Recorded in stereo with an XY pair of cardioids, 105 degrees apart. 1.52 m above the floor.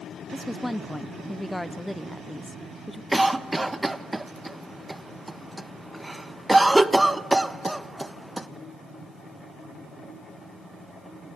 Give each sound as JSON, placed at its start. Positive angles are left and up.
{"t": 0.3, "sound": "a woman speaking", "azimuth_deg": 0, "distance_m": 0.7}
{"t": 3.1, "sound": "a cough", "azimuth_deg": -15, "distance_m": 1.3}